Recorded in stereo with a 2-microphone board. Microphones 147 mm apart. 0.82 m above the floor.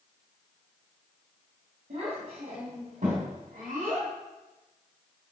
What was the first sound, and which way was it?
A child speaking, 70° right (ahead or behind).